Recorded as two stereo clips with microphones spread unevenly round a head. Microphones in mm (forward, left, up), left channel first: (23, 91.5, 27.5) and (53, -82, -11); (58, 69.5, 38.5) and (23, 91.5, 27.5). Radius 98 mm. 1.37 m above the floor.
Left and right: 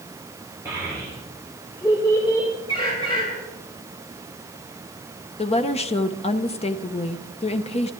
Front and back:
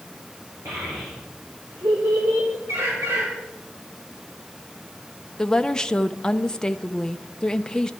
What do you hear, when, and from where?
0.7 s a child speaking: 160° right, 3 m; by 2.5 s 170° left, 3 m
2.7 s a bird: 165° left, 6 m
5.4 s a woman speaking: 40° left, 0.9 m